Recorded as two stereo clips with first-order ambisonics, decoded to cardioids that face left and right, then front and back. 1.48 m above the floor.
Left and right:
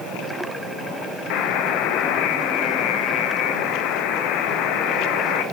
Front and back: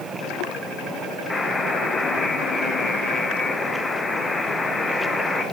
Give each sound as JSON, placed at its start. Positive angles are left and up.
{"t": 1.3, "sound": "a buzzer", "azimuth_deg": 75, "distance_m": 0.7}